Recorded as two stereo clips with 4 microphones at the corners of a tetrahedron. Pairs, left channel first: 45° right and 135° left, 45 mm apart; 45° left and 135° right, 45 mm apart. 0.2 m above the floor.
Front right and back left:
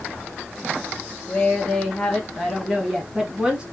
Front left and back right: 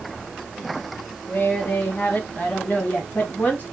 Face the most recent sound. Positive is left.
turn(degrees=75)